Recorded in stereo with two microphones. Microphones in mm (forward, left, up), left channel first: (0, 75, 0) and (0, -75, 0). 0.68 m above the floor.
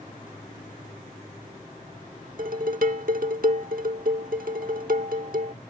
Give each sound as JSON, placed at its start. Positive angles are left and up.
{"t": 2.4, "sound": "dishes clattering", "side_deg": -70}